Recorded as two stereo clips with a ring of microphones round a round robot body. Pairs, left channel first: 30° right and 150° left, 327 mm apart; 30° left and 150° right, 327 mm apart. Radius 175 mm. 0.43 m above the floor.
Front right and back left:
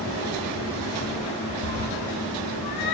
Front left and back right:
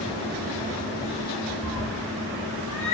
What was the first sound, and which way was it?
A cat meowing, 30° right.